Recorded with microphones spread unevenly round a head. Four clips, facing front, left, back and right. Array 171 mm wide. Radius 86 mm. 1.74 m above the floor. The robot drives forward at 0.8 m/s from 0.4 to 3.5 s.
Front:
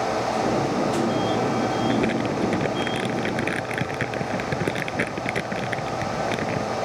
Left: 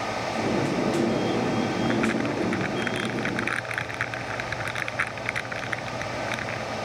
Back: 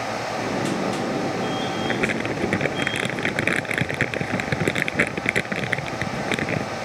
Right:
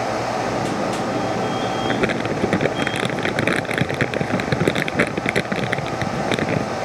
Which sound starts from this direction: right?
Crumpling, at 1.9 s.